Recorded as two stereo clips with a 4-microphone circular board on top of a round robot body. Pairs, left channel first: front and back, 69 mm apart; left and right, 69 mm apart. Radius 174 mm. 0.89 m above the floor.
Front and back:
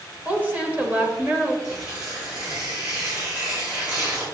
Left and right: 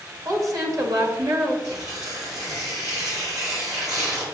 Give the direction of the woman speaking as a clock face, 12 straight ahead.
4 o'clock.